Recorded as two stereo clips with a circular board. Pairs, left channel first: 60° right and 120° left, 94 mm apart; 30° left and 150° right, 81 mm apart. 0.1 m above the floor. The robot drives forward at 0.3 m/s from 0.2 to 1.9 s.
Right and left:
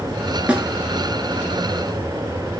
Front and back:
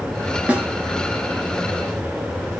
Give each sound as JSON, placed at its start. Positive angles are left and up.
{"t": 0.5, "sound": "a snare drum", "azimuth_deg": 170, "distance_m": 0.6}